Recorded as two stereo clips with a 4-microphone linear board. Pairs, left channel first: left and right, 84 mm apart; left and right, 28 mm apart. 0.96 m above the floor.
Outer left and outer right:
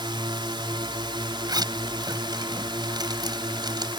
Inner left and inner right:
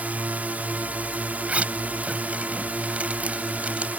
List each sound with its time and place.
0.0 s a drone: 65° right (ahead or behind)
1.5 s a zipper: 55° right (ahead or behind)